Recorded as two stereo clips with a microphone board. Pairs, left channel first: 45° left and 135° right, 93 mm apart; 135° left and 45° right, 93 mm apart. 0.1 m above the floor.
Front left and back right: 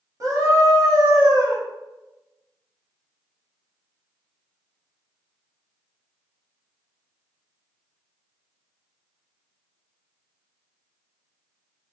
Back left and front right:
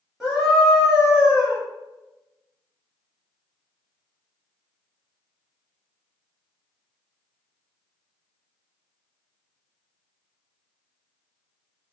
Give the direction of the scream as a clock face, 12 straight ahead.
4 o'clock.